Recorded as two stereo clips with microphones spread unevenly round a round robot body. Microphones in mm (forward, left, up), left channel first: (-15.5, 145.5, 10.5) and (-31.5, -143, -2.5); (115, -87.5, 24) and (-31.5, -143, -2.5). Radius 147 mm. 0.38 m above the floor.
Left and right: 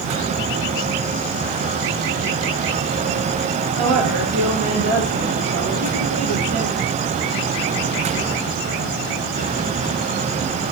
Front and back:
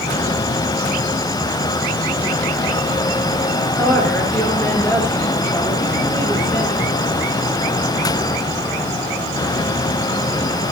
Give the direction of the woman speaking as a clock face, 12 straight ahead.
2 o'clock.